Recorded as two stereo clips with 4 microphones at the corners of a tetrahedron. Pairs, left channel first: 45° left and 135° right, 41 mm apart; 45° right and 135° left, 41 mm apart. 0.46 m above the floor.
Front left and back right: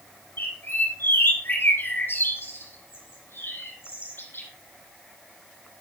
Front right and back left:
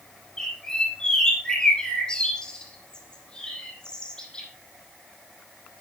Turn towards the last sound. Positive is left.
turn(degrees=25)